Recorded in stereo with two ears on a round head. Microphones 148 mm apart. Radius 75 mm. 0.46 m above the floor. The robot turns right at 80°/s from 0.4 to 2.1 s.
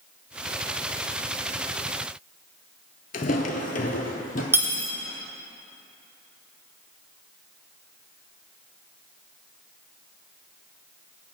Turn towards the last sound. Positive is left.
turn(degrees=-15)  # may be behind; listen again after turning